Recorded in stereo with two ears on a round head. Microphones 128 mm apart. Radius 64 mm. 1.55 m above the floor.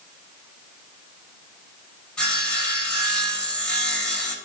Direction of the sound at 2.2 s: 5° left (ahead or behind).